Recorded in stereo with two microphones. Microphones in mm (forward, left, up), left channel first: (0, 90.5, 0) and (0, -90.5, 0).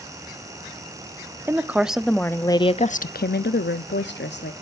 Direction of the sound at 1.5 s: 15° right (ahead or behind).